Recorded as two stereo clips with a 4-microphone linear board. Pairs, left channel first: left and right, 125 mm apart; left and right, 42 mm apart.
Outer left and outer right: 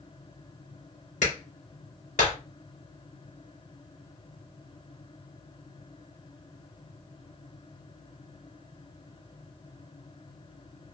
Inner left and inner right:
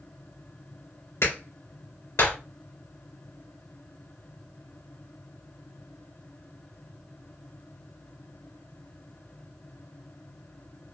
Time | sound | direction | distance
1.2 | a clap | 75° left (ahead or behind) | 2.5 m